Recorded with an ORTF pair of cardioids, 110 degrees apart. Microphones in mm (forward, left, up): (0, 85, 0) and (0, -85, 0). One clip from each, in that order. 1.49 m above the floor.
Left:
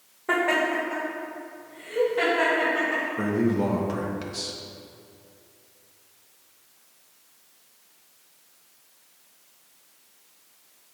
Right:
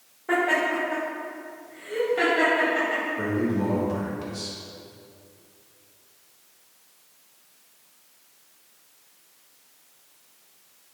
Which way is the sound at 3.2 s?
35° left.